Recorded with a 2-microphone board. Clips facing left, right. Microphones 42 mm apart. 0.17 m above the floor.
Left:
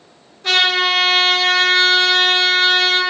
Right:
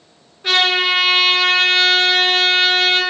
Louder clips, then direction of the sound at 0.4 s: Even; 15° right (ahead or behind).